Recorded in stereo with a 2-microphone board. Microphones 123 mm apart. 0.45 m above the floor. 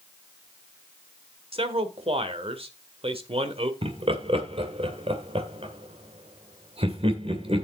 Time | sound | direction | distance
1.5 | a man speaking | 50° right (ahead or behind) | 1.6 m
3.8 | laughter | 50° right (ahead or behind) | 2 m